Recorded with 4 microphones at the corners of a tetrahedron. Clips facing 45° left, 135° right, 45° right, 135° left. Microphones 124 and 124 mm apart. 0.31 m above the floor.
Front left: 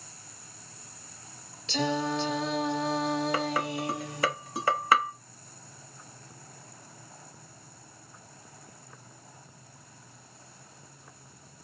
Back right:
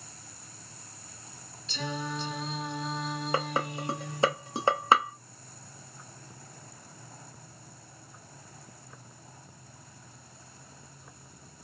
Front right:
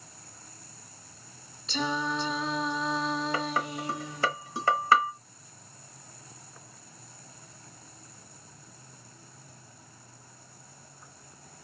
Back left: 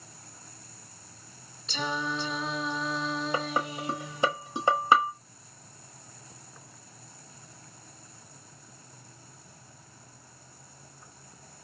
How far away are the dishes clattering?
About 0.9 m.